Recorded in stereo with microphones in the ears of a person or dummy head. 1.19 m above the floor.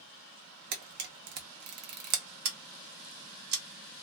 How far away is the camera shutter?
About 0.7 m.